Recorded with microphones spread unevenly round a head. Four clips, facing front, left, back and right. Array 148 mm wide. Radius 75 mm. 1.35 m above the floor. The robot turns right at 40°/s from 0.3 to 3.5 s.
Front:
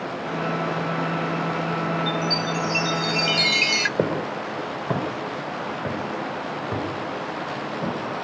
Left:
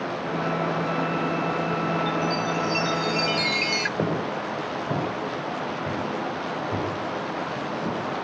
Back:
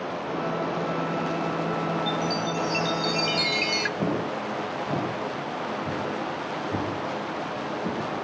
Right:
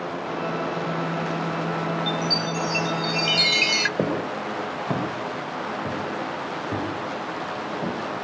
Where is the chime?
130° right, 0.6 m; by 3.9 s 70° right, 0.6 m.